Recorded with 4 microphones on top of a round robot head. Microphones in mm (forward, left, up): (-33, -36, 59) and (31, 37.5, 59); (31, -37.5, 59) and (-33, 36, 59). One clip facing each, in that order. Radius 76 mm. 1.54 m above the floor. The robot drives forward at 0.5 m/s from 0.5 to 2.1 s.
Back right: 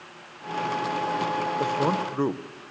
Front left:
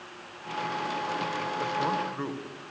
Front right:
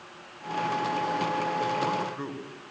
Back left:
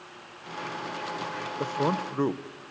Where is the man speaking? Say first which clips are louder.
Back right 2 dB, even; straight behind, 1.3 m.